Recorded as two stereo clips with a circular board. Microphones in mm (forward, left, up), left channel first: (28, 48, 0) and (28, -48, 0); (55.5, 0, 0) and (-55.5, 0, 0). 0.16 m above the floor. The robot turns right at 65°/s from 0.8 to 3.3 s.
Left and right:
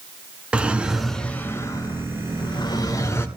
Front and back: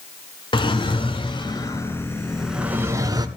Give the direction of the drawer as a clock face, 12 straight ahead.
12 o'clock.